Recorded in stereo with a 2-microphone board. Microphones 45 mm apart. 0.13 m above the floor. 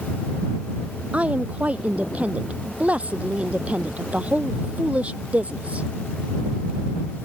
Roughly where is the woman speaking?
Right.